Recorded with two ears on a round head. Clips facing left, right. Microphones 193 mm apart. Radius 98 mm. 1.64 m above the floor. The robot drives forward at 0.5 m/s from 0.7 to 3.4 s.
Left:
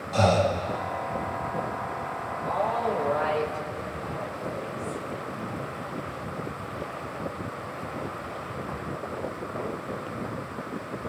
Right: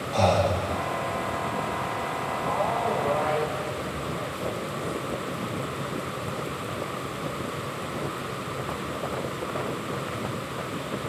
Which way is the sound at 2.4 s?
25° left (ahead or behind).